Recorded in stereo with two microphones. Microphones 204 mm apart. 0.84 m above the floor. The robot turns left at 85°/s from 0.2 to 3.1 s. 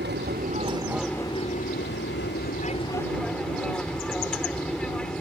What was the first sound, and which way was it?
An aircraft, 110° right.